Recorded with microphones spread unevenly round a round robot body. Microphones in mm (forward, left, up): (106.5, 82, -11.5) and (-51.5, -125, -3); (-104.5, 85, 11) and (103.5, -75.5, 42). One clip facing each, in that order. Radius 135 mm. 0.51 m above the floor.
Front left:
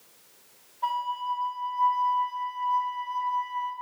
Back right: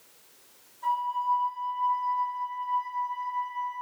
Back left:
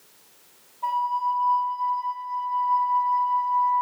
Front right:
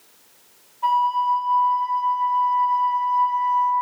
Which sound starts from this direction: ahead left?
A flute, at 0.8 s.